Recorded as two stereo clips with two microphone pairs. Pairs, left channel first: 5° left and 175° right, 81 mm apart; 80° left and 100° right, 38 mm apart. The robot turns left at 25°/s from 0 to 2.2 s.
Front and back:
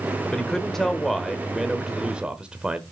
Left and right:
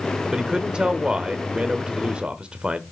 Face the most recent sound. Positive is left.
turn(degrees=-110)